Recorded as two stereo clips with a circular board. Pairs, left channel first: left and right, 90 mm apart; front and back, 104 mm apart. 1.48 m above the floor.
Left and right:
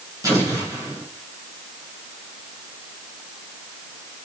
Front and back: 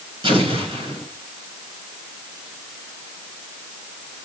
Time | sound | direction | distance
0.2 | an explosion | 150° right | 8.5 m